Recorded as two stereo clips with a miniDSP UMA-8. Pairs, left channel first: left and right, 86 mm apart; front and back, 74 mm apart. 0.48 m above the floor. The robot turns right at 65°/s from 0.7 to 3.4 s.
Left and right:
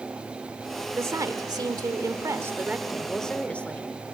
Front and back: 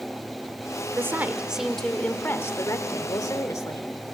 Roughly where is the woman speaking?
Behind right.